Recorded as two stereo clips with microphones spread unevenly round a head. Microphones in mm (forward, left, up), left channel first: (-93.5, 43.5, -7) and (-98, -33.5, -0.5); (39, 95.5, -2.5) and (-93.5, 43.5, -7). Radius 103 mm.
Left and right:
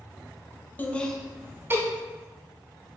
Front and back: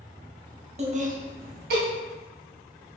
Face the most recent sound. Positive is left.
turn(degrees=-150)